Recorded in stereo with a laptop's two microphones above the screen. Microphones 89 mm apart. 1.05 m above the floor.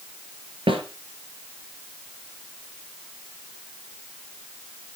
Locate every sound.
0.7 s a snare drum: 65° right (ahead or behind), 4.5 m